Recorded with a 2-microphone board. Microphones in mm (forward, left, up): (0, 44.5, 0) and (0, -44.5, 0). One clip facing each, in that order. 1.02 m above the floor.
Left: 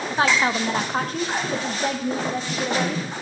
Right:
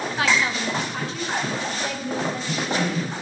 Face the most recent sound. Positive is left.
turn(degrees=35)  # may be behind; listen again after turning